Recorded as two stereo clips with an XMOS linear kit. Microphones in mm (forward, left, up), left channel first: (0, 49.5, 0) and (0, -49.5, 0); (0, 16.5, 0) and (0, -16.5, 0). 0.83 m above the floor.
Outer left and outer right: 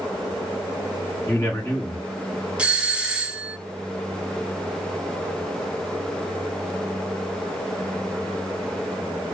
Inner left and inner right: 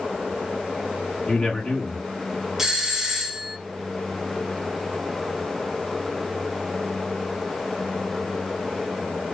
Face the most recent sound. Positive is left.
turn(degrees=-10)  # may be behind; listen again after turning